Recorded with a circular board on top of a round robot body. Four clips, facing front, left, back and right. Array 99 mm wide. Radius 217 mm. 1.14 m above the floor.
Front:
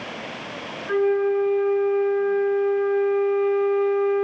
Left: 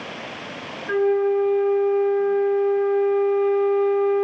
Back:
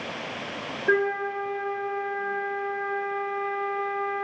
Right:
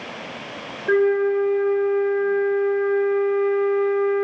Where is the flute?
160° right, 0.9 m.